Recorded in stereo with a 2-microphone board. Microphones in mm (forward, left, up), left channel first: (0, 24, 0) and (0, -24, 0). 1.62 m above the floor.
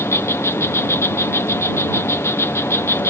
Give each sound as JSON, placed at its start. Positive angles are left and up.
{"t": 0.0, "sound": "an insect", "side_deg": 65}